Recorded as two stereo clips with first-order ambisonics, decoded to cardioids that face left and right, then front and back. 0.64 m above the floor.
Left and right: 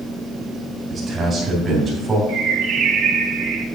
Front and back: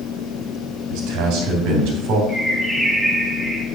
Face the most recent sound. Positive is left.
turn(degrees=-105)